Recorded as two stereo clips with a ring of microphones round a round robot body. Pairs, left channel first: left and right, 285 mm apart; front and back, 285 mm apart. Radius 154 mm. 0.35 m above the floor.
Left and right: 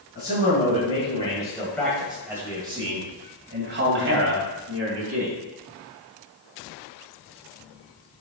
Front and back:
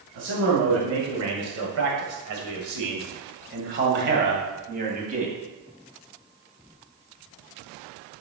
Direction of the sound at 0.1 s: 145° left.